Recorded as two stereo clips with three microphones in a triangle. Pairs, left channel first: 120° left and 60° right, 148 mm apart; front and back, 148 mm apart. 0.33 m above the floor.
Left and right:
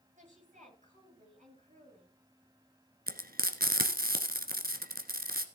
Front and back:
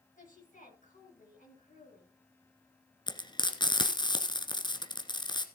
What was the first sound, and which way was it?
A woman speaking, 25° right.